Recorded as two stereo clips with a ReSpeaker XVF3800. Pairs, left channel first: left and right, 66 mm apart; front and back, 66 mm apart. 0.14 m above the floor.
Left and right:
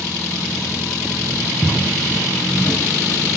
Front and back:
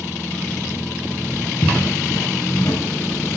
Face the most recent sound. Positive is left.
turn(degrees=35)